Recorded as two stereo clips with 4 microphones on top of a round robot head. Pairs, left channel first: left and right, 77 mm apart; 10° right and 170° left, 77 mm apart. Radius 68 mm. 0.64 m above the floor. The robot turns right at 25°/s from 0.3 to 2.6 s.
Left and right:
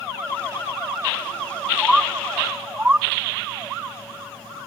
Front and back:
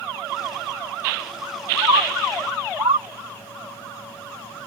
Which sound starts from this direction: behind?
A bird, at 1.8 s.